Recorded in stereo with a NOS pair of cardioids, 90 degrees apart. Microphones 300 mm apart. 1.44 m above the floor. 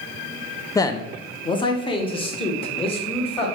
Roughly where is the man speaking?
Ahead.